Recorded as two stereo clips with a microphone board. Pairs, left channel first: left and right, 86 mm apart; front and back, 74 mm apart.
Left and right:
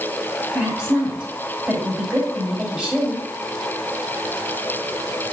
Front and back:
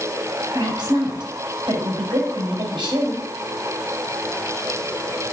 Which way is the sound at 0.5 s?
165° right.